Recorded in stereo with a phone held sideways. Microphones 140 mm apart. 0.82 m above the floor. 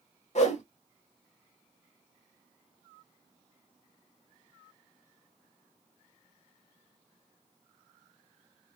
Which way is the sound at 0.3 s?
55° left (ahead or behind).